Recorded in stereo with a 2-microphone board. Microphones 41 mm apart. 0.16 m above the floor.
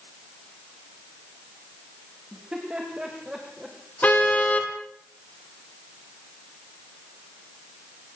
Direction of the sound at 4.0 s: 35° left (ahead or behind).